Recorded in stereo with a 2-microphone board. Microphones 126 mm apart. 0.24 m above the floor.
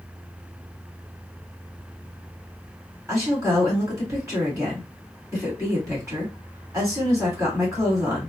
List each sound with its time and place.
3.1 s a woman speaking: 25° right (ahead or behind), 1.7 m